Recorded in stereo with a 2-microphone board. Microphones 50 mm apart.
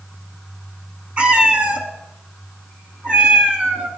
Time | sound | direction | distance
1.2 | a cat meowing | 25° right (ahead or behind) | 1.4 m